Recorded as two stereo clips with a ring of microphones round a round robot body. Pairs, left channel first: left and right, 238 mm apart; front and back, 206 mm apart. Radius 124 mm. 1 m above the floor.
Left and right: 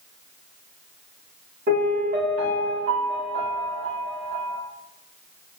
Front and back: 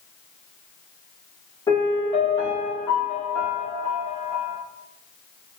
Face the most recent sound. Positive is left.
turn(degrees=-65)